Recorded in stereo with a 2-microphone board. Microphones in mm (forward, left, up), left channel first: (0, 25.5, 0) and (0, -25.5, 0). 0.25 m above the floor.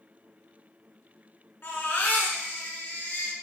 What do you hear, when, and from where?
1.6 s a baby crying: 50° left (ahead or behind), 1.2 m